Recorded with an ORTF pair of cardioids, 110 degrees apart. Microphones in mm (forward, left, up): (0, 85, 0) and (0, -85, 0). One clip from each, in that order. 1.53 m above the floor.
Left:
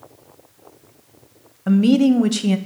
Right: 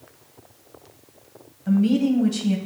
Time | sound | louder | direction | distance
1.7 | a woman speaking | left 5 dB | 55° left | 0.6 m